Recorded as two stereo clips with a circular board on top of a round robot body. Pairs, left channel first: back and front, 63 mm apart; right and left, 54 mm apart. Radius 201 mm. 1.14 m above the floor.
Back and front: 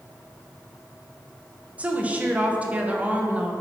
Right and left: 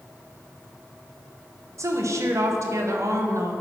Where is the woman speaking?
70° left, 1.3 m.